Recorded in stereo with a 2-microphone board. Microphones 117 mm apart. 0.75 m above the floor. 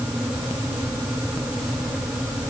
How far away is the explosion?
No explosion in this recording.